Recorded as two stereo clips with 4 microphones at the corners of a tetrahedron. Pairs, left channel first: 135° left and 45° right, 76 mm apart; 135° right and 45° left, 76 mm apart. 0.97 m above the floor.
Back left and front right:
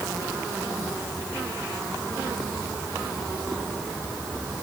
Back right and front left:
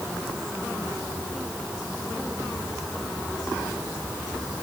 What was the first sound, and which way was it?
Only background noise.